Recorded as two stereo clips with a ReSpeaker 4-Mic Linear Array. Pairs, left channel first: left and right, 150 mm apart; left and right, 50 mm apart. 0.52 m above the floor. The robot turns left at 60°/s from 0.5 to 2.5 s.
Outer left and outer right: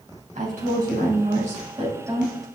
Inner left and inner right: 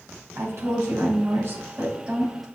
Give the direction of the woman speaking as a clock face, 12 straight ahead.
2 o'clock.